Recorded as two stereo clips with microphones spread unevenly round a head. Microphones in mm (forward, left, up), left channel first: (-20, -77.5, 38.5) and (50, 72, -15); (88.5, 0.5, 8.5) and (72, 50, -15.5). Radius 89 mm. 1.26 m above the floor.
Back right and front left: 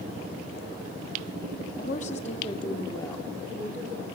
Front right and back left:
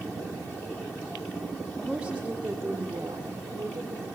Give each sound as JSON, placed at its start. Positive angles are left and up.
{"t": 1.8, "sound": "a woman speaking", "azimuth_deg": -160, "distance_m": 2.5}